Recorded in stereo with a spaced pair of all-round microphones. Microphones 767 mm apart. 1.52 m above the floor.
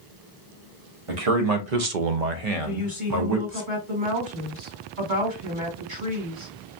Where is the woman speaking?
80° right, 2.5 m.